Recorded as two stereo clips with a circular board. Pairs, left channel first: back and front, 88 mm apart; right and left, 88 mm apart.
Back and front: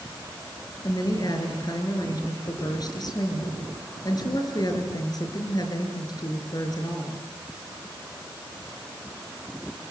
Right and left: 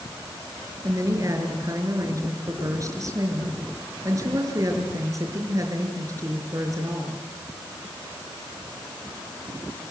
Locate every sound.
0.8 s a woman speaking: 140° left, 5.5 m